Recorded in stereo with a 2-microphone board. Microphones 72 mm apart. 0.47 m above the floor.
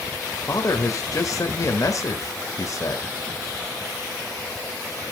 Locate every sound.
0.5 s a man speaking: 50° left (ahead or behind), 1.4 m